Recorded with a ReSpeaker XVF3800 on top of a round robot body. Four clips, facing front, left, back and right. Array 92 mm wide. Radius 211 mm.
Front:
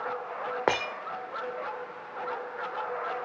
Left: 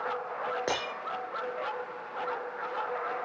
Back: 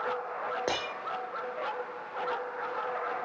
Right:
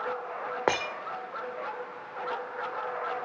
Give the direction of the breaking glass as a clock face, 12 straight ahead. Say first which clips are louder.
Right 4 dB, front 5 dB; 1 o'clock.